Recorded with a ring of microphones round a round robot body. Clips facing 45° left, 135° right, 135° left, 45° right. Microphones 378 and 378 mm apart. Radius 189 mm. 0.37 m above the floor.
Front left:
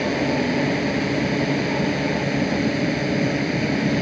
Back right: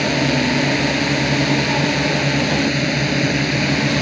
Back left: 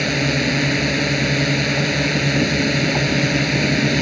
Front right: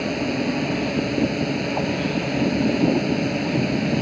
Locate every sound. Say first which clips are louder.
0.0 s a drone: back right 3 dB, back left 2 dB; 175° left